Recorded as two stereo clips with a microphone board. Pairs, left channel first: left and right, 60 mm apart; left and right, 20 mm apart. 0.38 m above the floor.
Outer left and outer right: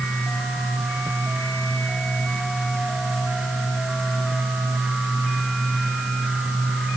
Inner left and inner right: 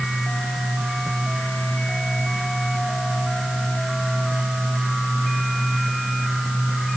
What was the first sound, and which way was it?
Only background noise.